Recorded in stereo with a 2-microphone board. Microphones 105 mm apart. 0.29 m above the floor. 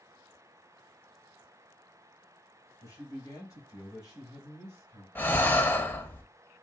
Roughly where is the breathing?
Centre.